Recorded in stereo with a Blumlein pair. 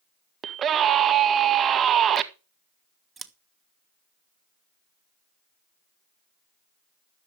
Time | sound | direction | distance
0.4 | a scream | 25° right | 1.7 m
3.2 | scissors | 10° right | 1.2 m